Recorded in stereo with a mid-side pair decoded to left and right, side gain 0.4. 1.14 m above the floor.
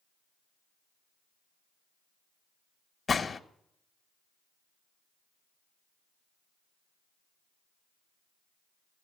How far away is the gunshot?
About 1.3 m.